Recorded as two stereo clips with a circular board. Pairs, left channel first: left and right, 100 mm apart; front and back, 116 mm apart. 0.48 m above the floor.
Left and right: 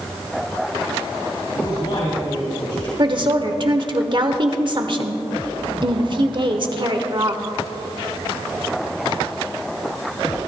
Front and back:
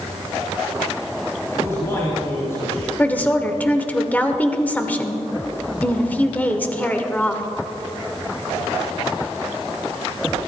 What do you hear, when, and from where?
1.6 s a man speaking: 65° left, 3 m
3.0 s a woman speaking: 70° right, 1.1 m